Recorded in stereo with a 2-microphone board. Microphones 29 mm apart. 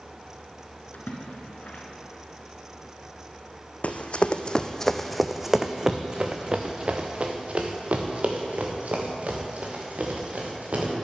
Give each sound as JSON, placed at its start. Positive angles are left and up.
{"t": 0.9, "sound": "a splash", "side_deg": 65, "distance_m": 1.7}
{"t": 3.8, "sound": "running footsteps", "side_deg": 55, "distance_m": 0.8}